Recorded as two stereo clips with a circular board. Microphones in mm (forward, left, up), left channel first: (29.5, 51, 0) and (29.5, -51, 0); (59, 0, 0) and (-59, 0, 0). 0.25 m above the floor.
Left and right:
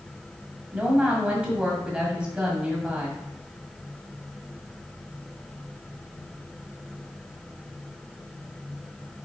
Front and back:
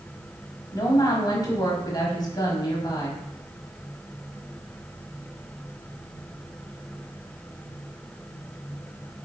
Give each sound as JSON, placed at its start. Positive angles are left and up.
{"t": 0.7, "sound": "a woman speaking", "azimuth_deg": -20, "distance_m": 1.2}